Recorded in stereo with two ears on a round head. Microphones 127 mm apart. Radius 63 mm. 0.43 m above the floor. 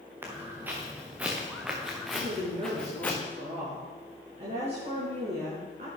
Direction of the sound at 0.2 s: 15° right (ahead or behind).